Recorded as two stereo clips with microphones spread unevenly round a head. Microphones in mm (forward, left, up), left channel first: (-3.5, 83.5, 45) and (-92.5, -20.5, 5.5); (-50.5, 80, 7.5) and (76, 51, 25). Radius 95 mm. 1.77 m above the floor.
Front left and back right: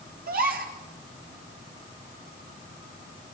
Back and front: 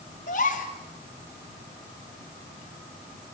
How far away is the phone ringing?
No phone ringing in this recording.